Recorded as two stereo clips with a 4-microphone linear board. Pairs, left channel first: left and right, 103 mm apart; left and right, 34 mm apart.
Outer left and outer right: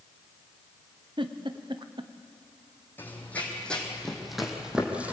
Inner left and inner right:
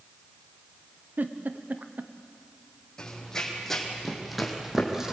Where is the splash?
No splash in this recording.